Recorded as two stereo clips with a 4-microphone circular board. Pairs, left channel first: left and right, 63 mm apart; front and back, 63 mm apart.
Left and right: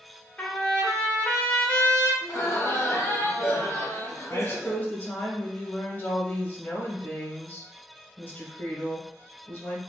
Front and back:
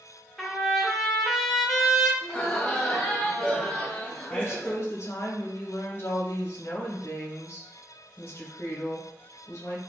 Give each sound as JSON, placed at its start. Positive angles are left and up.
{"t": 0.4, "sound": "a trumpet", "azimuth_deg": 85, "distance_m": 0.7}
{"t": 2.2, "sound": "laughter", "azimuth_deg": 65, "distance_m": 1.1}
{"t": 4.3, "sound": "a woman speaking", "azimuth_deg": 40, "distance_m": 0.9}